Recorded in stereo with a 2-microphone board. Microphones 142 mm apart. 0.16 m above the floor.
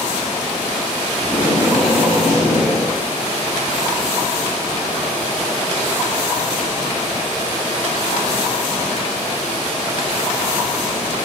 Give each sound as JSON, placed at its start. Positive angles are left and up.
{"t": 1.2, "sound": "tape being pulled", "side_deg": -5, "distance_m": 3.5}